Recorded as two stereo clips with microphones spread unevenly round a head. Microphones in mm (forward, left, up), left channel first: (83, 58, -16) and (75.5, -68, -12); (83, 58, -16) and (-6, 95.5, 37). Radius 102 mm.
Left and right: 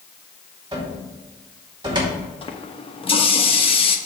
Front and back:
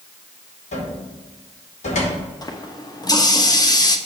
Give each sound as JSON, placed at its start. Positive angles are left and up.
{"t": 0.7, "sound": "a cupboard door", "azimuth_deg": -35, "distance_m": 2.5}
{"t": 2.4, "sound": "a running tap", "azimuth_deg": 45, "distance_m": 1.1}